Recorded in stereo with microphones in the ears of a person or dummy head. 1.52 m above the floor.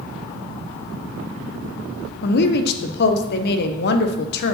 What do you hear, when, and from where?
2.2 s a woman speaking: 65° left (ahead or behind), 0.9 m